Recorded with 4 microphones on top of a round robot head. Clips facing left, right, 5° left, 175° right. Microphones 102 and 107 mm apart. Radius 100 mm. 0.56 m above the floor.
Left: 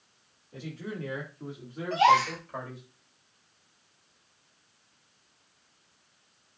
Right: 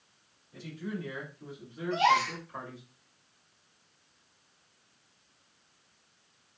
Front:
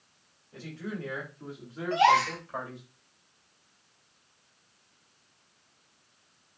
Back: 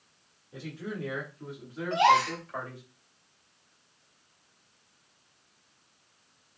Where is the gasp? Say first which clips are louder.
Left 4 dB, even; 115° left, 3.5 m.